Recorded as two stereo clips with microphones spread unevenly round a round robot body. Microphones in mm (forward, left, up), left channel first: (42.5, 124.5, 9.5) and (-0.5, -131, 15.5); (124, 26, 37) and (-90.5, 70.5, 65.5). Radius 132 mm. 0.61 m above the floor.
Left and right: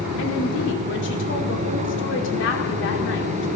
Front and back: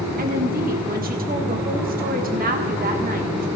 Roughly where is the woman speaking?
Behind left.